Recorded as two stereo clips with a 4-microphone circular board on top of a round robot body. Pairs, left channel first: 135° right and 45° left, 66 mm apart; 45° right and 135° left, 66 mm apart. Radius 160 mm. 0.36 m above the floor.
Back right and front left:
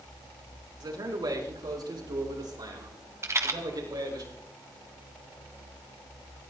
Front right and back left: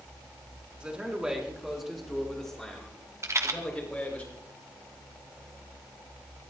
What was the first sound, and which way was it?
A man speaking, 60° left.